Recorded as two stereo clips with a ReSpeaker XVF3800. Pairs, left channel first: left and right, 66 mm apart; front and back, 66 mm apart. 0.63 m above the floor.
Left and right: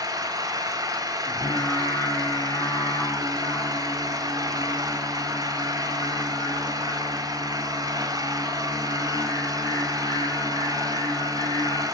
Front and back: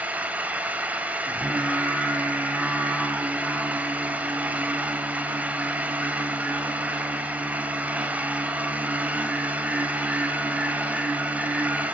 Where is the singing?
105° left, 3 m.